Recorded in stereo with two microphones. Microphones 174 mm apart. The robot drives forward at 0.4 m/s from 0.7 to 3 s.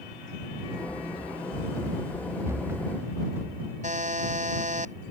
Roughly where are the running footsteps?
Centre.